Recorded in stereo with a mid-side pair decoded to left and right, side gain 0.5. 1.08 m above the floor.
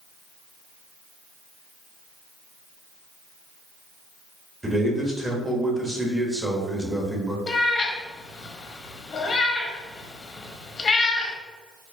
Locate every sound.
4.6 s a man speaking: 10° right, 1.4 m
7.5 s a cat meowing: 40° left, 0.8 m